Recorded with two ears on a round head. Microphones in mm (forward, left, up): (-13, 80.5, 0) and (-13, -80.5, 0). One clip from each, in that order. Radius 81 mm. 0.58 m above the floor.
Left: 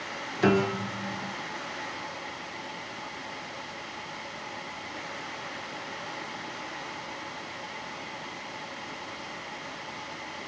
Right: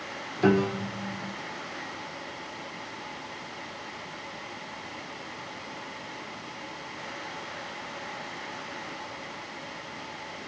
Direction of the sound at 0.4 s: 30° left (ahead or behind).